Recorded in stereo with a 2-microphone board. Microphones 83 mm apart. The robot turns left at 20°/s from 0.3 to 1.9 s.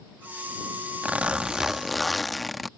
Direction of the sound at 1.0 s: 20° right (ahead or behind).